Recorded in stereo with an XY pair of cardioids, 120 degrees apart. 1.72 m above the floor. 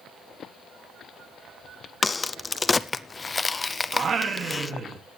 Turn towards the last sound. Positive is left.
turn(degrees=-40)